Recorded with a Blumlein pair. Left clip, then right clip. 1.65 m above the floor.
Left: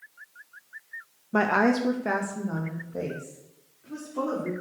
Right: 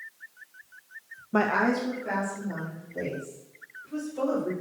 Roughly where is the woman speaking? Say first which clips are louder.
Left 2 dB; ahead.